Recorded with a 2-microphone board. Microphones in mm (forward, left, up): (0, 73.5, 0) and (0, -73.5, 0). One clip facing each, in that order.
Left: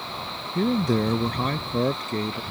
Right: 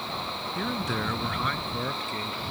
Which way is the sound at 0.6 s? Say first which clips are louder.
Left 10 dB; 40° left (ahead or behind).